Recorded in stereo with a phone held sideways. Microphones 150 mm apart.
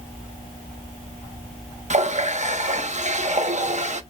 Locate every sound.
1.9 s a running tap: 50° right (ahead or behind), 0.7 m